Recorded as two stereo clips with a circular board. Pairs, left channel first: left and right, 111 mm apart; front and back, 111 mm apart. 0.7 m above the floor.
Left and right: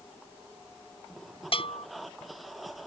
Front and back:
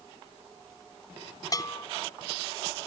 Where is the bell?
55° left.